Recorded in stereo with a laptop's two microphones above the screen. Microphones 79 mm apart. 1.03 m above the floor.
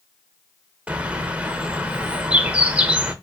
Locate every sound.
0.9 s a bird: 15° right (ahead or behind), 0.6 m